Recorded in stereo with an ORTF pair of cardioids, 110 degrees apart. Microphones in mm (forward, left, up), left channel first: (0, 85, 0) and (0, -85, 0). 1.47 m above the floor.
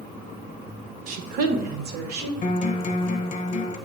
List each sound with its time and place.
1.1 s a woman speaking: 55° right, 0.8 m; by 2.3 s 75° right, 1.3 m
2.4 s a guitar: 45° left, 0.9 m